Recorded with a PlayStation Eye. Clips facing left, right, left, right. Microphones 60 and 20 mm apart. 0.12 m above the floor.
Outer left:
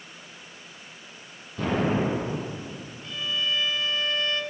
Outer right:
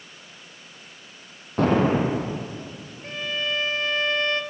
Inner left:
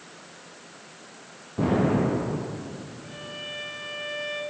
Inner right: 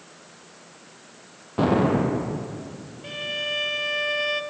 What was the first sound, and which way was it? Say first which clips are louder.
An explosion: outer right 5 dB, inner right 2 dB; 55° right (ahead or behind).